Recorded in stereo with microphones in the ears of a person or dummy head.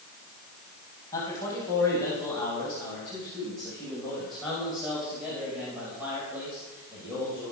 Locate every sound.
1.1 s a man speaking: 15° left (ahead or behind), 8.5 m; by 7.5 s 20° right (ahead or behind), 6.5 m